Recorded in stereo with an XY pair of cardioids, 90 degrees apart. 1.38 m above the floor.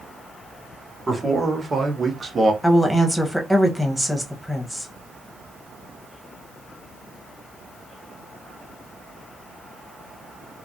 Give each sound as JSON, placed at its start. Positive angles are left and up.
{"t": 1.1, "sound": "a man speaking", "azimuth_deg": -25, "distance_m": 2.0}
{"t": 2.6, "sound": "a woman speaking", "azimuth_deg": 0, "distance_m": 1.1}